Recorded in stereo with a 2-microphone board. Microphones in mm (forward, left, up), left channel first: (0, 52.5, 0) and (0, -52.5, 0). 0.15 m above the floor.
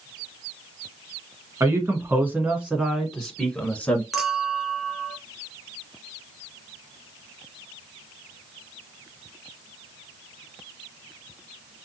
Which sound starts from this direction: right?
A man speaking, at 1.6 s.